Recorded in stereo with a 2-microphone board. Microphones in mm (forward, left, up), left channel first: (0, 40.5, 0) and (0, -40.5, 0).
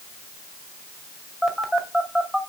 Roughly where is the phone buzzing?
Centre.